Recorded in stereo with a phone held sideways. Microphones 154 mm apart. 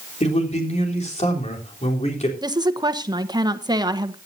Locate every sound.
0.2 s a man speaking: 45° left (ahead or behind), 3.5 m
2.4 s a woman speaking: 25° right (ahead or behind), 1.1 m